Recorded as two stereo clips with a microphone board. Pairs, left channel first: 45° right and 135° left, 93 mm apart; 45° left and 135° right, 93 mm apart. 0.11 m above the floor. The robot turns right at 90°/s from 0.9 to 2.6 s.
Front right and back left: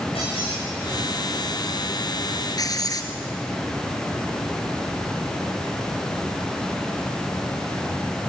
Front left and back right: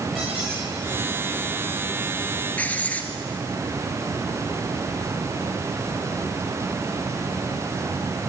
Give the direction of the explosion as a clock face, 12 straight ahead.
I don't hear an explosion.